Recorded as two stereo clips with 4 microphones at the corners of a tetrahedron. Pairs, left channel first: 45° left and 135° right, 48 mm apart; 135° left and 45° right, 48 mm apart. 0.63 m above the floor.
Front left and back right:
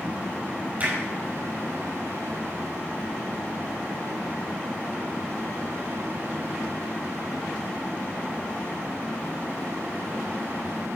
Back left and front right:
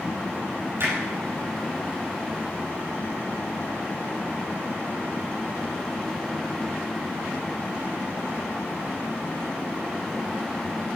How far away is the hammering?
About 6.5 m.